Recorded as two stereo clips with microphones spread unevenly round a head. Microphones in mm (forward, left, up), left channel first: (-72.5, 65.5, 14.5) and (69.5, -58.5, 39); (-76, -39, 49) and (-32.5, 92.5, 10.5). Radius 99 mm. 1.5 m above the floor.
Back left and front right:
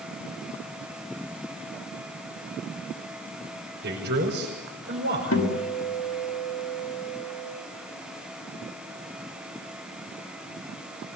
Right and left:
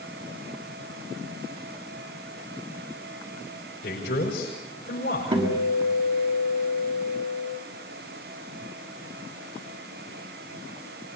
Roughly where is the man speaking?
Right.